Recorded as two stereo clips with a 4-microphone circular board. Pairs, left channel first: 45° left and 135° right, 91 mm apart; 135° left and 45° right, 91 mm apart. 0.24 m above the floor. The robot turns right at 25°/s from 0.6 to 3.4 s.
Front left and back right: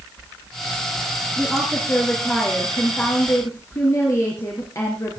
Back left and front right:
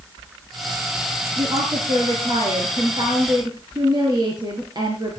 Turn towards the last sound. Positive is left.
turn(degrees=-10)